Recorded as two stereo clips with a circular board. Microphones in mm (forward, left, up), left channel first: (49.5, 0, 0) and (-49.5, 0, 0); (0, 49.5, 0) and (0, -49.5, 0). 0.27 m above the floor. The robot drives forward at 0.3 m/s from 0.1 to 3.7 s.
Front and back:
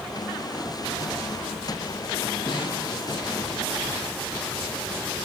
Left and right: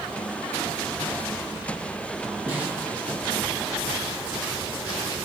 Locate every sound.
2.5 s a snare drum: 25° right, 2.5 m